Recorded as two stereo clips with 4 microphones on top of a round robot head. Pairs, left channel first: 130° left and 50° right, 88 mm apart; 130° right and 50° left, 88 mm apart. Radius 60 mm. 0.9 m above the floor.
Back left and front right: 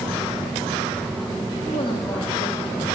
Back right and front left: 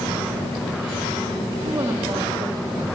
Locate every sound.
1.6 s a woman speaking: 115° left, 1.7 m